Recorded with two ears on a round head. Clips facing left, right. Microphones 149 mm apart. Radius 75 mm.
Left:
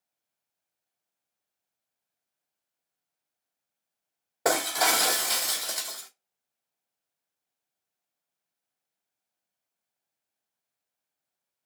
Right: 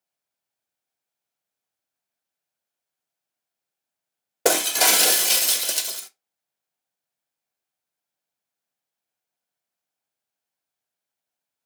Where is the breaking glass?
35° right (ahead or behind), 0.5 m.